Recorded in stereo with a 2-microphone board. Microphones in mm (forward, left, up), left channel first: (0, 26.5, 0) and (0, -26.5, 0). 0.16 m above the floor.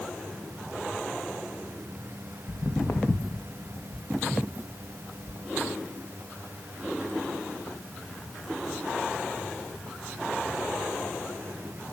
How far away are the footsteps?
About 0.8 m.